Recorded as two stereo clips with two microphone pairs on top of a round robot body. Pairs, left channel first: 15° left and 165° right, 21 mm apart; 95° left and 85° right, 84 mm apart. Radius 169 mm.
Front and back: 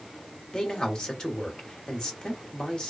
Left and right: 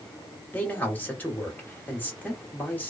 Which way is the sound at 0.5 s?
35° left.